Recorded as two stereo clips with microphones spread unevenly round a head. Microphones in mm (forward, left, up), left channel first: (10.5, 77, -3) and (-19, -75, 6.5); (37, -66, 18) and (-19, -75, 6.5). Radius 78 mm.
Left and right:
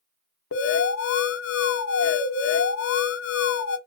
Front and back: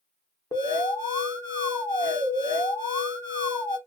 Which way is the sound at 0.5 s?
80° left.